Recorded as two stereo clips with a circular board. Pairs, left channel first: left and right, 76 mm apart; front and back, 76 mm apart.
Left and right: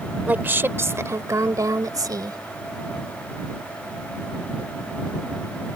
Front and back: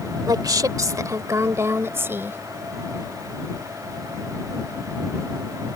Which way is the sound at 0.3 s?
155° right.